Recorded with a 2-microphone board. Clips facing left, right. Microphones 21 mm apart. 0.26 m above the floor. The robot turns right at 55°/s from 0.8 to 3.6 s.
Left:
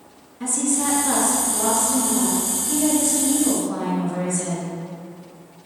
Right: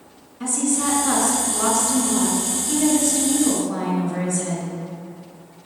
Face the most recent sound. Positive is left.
turn(degrees=0)